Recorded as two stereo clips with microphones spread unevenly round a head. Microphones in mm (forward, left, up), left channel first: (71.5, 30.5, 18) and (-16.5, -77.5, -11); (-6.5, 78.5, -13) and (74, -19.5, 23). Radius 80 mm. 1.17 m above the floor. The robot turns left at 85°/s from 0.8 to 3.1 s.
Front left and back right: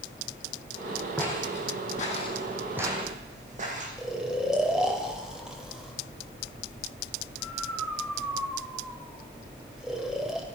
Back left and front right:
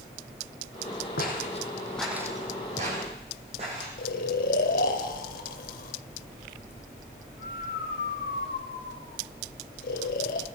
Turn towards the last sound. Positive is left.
turn(degrees=135)